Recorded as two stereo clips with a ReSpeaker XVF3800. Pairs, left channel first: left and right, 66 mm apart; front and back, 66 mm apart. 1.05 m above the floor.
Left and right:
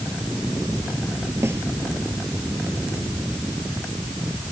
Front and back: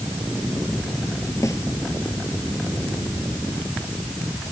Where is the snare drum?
40° right.